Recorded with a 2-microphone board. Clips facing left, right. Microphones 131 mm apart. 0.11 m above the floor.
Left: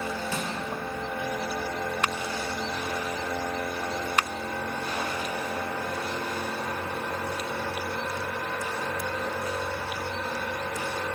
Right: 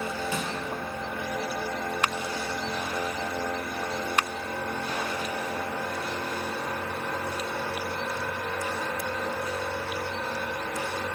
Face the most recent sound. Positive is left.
turn(degrees=-15)  # may be behind; listen again after turning